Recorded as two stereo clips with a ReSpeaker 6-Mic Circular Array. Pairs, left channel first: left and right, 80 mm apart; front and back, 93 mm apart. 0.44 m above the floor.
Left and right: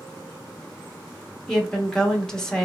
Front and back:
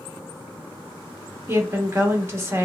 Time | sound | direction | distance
1.5 | a woman speaking | 165° left | 0.8 m